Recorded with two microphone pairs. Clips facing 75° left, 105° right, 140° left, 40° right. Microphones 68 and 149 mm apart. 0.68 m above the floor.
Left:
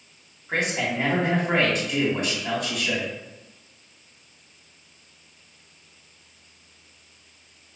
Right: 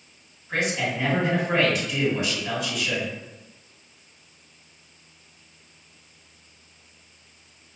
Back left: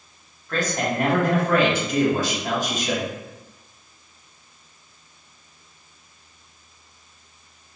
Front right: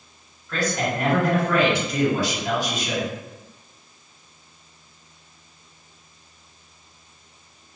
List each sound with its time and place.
0.5 s a man speaking: 110° left, 1.4 m